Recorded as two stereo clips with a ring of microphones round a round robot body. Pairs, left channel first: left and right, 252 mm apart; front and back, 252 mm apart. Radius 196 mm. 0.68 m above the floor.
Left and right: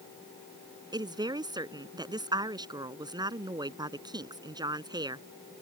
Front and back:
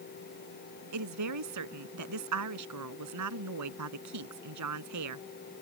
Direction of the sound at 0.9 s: 165° right.